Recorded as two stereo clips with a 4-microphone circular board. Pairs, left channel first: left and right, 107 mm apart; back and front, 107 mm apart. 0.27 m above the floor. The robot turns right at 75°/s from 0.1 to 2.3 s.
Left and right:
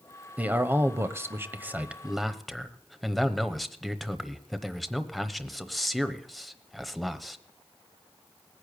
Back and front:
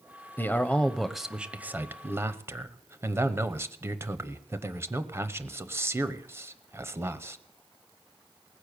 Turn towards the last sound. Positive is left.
turn(degrees=0)